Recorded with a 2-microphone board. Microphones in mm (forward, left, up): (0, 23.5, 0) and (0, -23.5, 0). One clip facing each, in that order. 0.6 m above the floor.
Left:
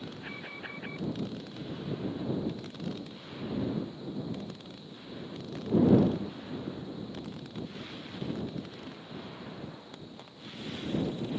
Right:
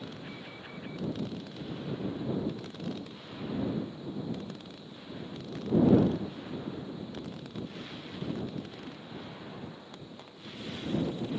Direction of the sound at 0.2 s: 35° left (ahead or behind).